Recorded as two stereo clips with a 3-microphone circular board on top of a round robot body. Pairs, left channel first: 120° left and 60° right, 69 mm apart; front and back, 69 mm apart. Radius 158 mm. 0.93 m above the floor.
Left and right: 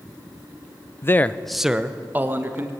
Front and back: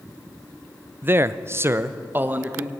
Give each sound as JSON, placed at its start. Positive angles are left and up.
{"t": 1.0, "sound": "a man speaking", "azimuth_deg": 140, "distance_m": 1.0}